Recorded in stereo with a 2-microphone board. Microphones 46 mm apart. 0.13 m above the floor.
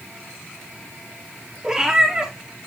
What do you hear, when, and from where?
1.6 s a cat meowing: 10° right (ahead or behind), 4 m